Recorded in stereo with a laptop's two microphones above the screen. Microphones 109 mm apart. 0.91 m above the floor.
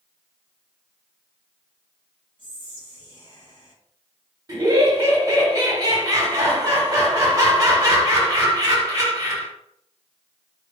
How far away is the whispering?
About 0.9 m.